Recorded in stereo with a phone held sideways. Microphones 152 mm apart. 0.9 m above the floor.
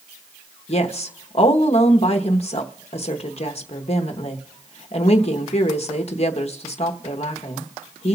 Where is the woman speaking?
45° left (ahead or behind), 0.9 m.